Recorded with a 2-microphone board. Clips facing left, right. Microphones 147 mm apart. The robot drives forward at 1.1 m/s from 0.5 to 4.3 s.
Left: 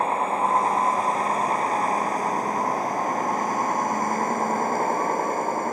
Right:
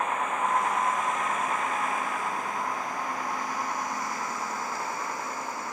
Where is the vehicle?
35° left (ahead or behind); by 5.7 s 50° left (ahead or behind).